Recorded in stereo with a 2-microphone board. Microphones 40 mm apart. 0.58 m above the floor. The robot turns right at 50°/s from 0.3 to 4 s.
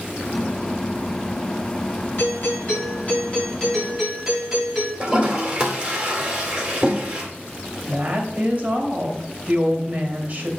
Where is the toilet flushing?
20° right (ahead or behind), 2.5 m.